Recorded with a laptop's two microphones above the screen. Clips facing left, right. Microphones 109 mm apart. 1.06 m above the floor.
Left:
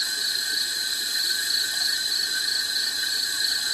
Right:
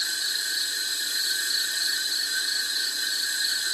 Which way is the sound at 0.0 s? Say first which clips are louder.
Left 1 dB; 65° left (ahead or behind).